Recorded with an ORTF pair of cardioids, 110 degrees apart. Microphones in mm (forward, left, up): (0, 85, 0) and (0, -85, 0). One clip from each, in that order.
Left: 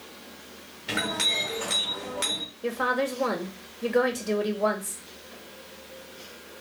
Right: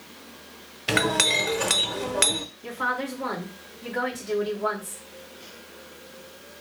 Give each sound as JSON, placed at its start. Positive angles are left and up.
{"t": 0.9, "sound": "a clink", "azimuth_deg": -50, "distance_m": 0.7}
{"t": 2.6, "sound": "a woman speaking", "azimuth_deg": 65, "distance_m": 1.6}